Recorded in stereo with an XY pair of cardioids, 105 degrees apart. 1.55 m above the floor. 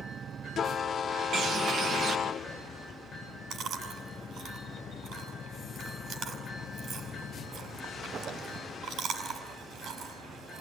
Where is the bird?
60° right, 2.5 m.